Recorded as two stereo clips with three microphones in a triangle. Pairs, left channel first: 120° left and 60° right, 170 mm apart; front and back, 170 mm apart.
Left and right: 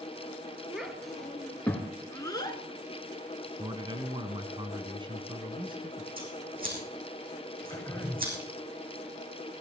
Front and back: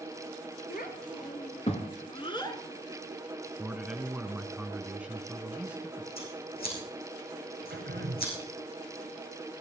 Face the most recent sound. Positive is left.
turn(degrees=-165)